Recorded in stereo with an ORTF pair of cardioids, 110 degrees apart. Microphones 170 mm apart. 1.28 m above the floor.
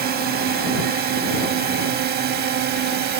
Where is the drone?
65° right; by 3.2 s 70° right.